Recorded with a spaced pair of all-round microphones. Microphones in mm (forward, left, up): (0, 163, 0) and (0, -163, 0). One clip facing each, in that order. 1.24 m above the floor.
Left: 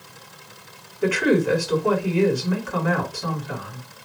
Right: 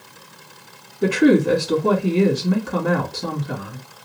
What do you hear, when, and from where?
1.0 s a woman speaking: 50° right (ahead or behind), 1.5 m